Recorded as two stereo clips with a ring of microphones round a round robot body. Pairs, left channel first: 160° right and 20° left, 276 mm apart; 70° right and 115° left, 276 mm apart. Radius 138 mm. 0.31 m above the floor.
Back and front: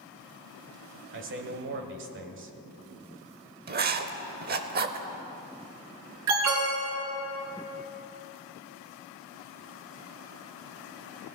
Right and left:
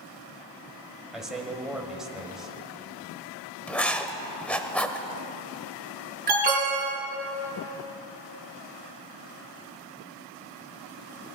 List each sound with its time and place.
1.1 s a man speaking: 25° left, 1.5 m
3.7 s writing: 15° left, 0.8 m
6.3 s an alarm: 55° left, 4 m